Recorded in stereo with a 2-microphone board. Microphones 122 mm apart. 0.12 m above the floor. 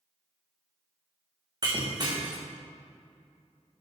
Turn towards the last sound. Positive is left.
turn(degrees=-35)  # may be behind; listen again after turning